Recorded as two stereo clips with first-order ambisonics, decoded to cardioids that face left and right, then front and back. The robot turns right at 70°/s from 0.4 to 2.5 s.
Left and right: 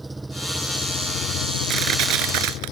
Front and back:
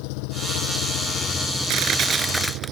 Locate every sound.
0.0 s an engine running: 5° right; by 2.7 s 140° left
1.7 s crushing: 145° right; by 2.7 s 90° right